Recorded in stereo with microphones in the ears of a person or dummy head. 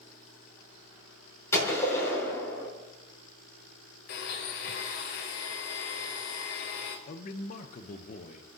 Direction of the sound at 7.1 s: 40° left (ahead or behind).